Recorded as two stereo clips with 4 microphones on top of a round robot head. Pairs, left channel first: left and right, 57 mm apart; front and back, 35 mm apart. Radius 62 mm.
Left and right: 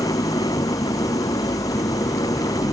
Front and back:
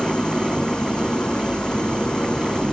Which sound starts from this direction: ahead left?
An engine running, at 0.0 s.